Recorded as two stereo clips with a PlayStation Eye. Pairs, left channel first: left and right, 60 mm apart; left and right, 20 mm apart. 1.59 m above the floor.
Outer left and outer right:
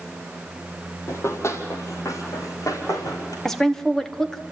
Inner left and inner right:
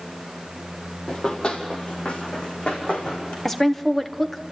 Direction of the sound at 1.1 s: 45° left (ahead or behind).